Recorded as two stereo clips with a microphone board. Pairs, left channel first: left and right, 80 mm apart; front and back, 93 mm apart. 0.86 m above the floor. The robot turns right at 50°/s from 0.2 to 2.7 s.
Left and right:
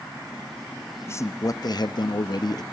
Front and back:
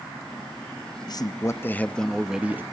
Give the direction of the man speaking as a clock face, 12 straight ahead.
11 o'clock.